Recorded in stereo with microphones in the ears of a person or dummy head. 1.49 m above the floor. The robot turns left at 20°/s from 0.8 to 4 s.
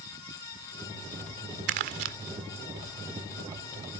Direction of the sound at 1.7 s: 55° right (ahead or behind).